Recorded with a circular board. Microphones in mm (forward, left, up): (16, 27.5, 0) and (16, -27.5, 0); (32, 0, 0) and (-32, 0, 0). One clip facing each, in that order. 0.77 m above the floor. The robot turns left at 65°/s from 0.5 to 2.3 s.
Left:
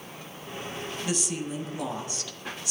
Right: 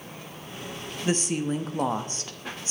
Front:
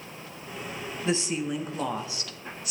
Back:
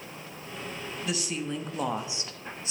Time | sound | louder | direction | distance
1.1 | a woman speaking | right 7 dB, front 5 dB | 50° right | 0.8 m